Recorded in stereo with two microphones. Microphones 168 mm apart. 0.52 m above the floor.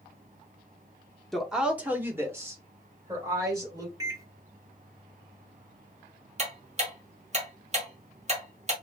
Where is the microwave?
20° right (ahead or behind), 0.7 m.